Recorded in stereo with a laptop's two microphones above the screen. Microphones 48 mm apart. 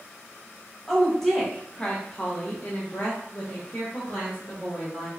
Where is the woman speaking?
Centre (ahead or behind), 1.0 m; by 5.1 s 30° left (ahead or behind), 1.7 m.